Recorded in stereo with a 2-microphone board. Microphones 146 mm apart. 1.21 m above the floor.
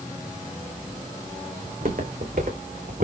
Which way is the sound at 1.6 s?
70° right (ahead or behind).